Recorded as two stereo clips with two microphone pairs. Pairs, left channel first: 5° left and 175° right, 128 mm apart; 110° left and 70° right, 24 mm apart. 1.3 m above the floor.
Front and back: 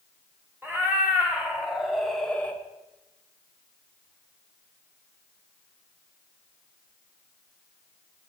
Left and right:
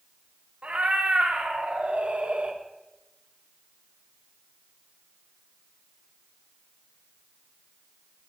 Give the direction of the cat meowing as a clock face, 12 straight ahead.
3 o'clock.